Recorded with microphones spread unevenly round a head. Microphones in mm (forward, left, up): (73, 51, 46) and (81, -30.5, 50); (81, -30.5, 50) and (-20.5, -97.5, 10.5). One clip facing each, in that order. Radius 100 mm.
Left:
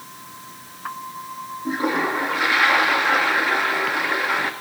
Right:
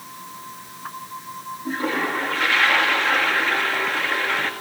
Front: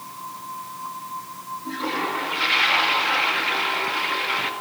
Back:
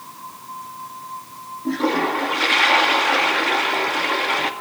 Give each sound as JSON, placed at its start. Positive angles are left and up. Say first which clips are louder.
{"t": 1.6, "sound": "a toilet flushing", "louder": "left 2 dB, back 7 dB", "azimuth_deg": 175, "distance_m": 2.0}